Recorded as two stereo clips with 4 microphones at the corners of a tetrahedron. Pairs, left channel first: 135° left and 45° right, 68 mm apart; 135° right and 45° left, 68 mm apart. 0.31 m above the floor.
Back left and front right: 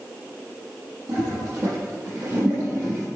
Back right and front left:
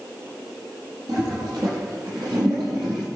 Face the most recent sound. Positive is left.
turn(degrees=15)